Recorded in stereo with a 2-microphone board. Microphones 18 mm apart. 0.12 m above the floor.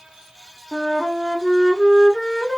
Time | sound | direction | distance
0.7 | a flute | centre (ahead or behind) | 1.1 m